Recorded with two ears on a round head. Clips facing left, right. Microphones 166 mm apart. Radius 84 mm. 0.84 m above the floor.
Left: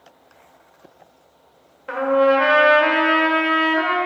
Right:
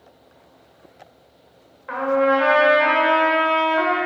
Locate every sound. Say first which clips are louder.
1.9 s a trumpet: left 2 dB; 40° left (ahead or behind), 1.5 m